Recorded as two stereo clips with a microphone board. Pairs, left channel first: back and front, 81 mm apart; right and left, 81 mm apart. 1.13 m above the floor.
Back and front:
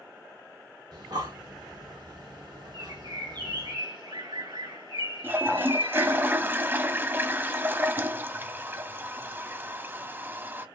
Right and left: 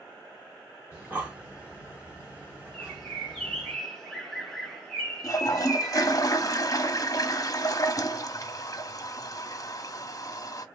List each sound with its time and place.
0.9 s breathing: 20° left, 2.5 m
2.7 s a bird: straight ahead, 4 m
5.2 s a toilet flushing: 60° right, 0.8 m